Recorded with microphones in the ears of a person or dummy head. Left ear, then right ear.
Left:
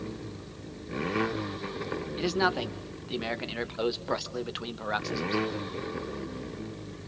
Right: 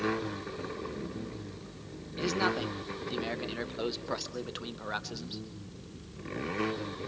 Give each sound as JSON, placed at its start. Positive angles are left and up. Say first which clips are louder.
{"t": 2.2, "sound": "a man speaking", "louder": "left 2 dB", "side_deg": 15, "distance_m": 1.8}